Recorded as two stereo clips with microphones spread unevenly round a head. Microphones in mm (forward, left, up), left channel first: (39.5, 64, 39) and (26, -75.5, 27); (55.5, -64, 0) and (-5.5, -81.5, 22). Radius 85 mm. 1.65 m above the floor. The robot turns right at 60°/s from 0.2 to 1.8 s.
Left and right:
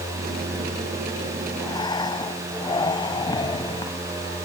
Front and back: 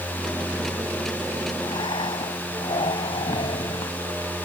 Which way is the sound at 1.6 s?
10° left.